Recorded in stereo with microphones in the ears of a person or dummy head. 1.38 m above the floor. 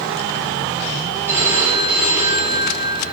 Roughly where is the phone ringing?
Centre.